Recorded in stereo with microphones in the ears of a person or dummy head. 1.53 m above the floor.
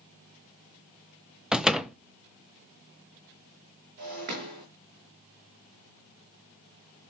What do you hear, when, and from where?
1.5 s a door slam: 5° right (ahead or behind), 0.8 m
4.0 s breaking glass: 50° right (ahead or behind), 5 m